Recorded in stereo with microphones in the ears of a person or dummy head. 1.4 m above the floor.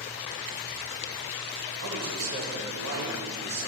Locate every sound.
1.8 s a man speaking: 75° right (ahead or behind), 2.0 m